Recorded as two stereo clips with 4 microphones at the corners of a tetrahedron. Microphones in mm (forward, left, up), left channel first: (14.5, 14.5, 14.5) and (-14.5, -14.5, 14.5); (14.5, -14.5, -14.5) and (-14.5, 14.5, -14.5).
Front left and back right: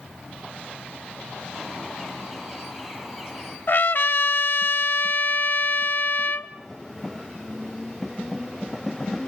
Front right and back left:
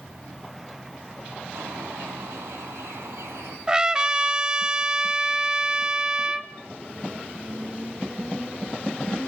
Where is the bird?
140° left, 3.5 m.